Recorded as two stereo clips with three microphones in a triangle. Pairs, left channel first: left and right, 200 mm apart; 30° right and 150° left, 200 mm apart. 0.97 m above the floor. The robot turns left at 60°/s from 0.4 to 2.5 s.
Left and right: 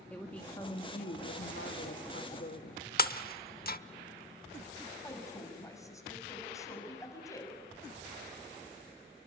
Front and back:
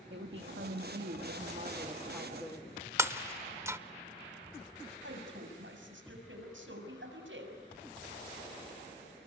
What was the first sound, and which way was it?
A woman speaking, 170° left.